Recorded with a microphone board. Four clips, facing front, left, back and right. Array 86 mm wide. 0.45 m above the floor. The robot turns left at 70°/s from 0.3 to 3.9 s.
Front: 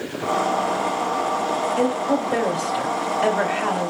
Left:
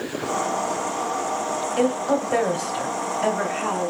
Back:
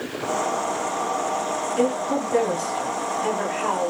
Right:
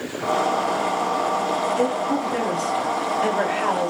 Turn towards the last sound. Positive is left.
turn(degrees=-60)